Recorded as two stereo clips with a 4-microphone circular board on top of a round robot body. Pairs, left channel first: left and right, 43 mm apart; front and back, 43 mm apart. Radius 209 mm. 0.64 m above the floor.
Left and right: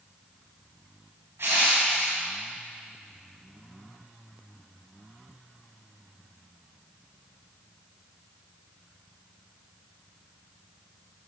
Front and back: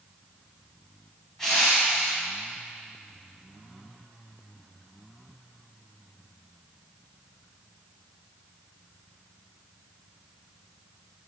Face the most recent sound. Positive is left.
turn(degrees=-85)